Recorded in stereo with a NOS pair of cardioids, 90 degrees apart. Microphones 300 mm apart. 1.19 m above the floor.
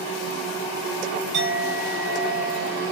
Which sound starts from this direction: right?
A clink, at 1.3 s.